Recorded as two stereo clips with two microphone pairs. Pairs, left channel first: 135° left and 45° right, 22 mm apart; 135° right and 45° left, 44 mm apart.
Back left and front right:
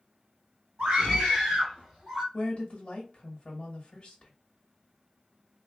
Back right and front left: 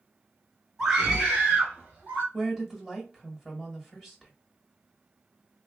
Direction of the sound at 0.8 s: 30° right.